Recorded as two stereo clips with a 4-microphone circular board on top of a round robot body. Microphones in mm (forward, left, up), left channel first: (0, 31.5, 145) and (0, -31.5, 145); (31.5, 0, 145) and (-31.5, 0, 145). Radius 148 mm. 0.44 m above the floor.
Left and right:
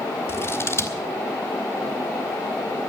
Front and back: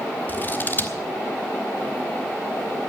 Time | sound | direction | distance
0.3 | scissors | 50° left | 1.8 m